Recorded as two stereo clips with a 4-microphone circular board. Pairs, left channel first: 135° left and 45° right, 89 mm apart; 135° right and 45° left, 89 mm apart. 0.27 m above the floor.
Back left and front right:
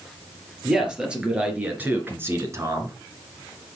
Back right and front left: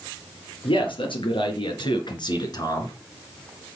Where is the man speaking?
125° right, 4.5 m; by 3.0 s 90° right, 2.5 m.